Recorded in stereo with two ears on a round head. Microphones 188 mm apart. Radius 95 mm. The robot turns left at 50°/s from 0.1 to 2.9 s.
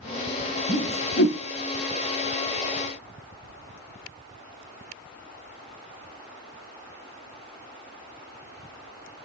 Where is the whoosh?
40° left (ahead or behind), 0.8 m; by 1.4 s 75° left (ahead or behind), 0.8 m.